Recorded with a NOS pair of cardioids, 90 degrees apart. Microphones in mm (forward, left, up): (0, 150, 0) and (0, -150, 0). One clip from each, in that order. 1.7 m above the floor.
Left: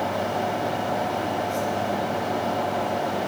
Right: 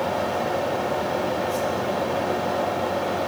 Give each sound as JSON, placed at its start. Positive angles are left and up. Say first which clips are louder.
{"t": 0.0, "sound": "a fan", "louder": "right 1 dB", "azimuth_deg": -40, "distance_m": 4.5}